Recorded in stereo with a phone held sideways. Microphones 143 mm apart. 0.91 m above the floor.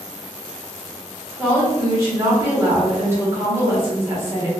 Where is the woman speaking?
20° right (ahead or behind), 1.3 m.